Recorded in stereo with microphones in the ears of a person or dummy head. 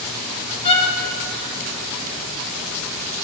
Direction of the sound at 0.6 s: 35° left (ahead or behind).